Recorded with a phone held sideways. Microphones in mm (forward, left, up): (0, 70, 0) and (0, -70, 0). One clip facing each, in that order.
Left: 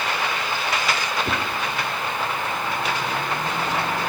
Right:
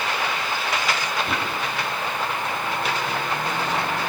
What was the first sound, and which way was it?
A whoosh, 40° left (ahead or behind).